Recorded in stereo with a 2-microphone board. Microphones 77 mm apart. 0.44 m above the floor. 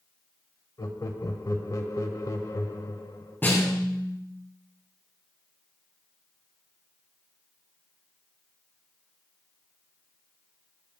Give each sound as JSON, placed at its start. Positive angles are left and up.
{"t": 0.8, "sound": "laughter", "side_deg": 50, "distance_m": 1.7}
{"t": 3.4, "sound": "a snare drum", "side_deg": 25, "distance_m": 6.0}